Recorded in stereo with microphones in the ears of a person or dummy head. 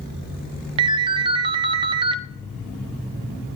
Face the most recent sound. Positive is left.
turn(degrees=-30)  # may be behind; listen again after turning